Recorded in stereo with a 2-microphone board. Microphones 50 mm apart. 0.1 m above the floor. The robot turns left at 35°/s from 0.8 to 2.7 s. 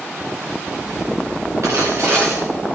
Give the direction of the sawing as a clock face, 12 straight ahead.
4 o'clock.